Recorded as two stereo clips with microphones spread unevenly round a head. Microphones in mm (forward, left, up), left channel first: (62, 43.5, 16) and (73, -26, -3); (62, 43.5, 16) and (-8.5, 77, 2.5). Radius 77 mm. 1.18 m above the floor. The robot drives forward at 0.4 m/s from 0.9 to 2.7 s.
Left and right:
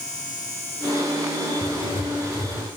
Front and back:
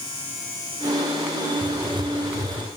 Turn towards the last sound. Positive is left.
turn(degrees=125)